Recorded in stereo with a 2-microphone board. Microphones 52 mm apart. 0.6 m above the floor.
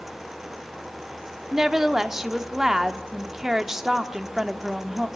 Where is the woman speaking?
10° right (ahead or behind), 1.1 m.